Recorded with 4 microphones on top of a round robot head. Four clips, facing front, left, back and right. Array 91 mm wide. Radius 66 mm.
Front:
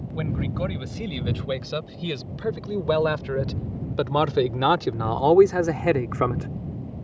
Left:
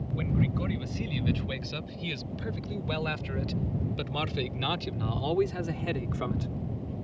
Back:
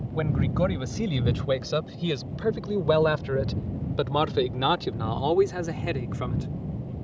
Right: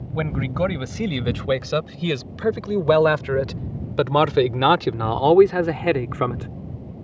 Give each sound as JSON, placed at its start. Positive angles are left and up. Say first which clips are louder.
{"t": 0.1, "sound": "a man speaking", "louder": "right 7 dB, back 3 dB", "azimuth_deg": -110}